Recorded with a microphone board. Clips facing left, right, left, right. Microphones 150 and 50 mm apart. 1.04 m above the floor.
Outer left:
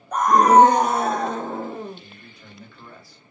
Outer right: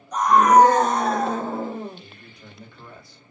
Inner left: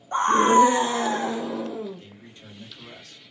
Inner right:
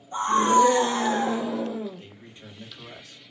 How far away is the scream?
About 0.5 m.